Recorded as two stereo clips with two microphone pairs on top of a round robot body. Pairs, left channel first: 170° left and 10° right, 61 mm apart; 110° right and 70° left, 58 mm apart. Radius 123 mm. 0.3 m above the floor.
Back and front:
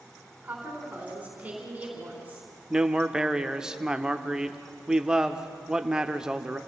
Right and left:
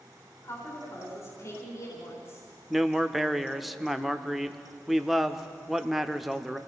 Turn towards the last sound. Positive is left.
turn(degrees=50)